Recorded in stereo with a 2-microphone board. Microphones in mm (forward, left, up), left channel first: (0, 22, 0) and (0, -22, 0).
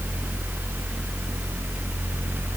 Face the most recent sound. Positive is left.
No sound to turn to.